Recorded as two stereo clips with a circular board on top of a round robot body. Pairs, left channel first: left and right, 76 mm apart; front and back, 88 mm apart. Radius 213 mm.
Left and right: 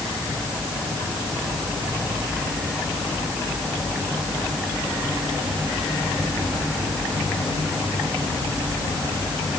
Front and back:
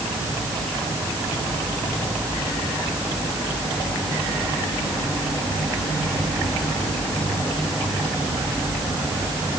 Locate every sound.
Only background noise.